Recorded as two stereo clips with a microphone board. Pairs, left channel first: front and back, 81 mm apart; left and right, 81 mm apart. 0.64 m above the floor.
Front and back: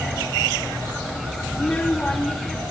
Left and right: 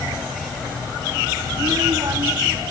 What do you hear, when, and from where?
1.5 s a child speaking: 60° right, 1.0 m; by 2.7 s 75° right, 2.5 m